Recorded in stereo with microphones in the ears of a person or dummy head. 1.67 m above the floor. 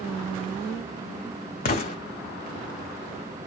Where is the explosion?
35° left (ahead or behind), 0.5 m.